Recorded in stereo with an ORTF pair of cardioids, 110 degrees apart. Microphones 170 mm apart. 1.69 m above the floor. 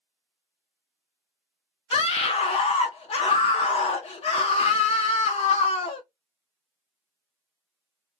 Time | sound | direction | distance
1.9 | a scream | 35° left | 0.6 m